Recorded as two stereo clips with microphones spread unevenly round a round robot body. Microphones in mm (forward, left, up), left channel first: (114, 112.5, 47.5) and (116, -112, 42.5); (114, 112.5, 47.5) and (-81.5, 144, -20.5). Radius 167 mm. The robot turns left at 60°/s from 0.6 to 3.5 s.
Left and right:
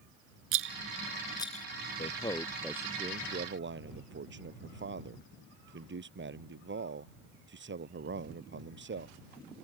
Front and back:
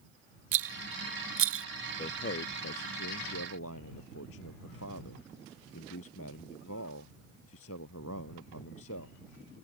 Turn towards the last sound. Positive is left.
turn(degrees=-55)